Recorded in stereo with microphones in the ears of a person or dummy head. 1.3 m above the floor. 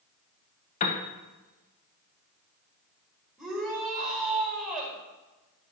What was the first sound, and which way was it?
A piano, 40° left (ahead or behind).